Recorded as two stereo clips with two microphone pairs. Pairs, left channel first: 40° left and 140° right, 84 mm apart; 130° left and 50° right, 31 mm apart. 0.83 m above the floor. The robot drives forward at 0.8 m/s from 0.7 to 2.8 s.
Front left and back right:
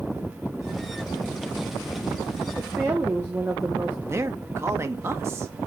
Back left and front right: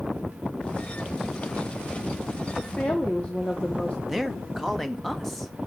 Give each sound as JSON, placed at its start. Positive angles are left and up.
{"t": 2.6, "sound": "a woman speaking", "azimuth_deg": 155, "distance_m": 1.6}
{"t": 4.1, "sound": "a man speaking", "azimuth_deg": -145, "distance_m": 1.1}